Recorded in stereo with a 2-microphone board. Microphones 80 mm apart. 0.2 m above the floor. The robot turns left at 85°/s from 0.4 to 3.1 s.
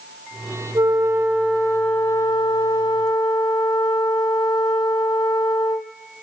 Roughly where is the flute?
Right.